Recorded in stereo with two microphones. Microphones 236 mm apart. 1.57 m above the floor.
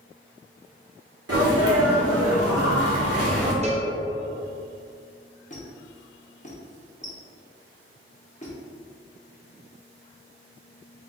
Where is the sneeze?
80° right, 1.3 m.